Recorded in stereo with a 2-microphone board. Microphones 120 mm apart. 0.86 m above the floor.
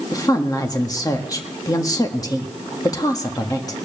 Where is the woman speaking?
30° left (ahead or behind), 1.6 m.